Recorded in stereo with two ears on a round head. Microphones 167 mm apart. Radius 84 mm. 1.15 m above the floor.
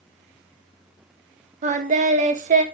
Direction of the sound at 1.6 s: 35° right (ahead or behind).